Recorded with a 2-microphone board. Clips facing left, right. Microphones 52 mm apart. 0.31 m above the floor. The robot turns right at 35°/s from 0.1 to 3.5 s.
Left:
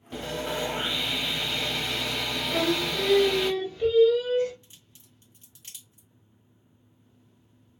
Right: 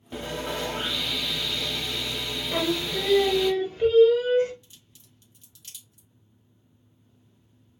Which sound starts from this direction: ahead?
Sawing, at 0.1 s.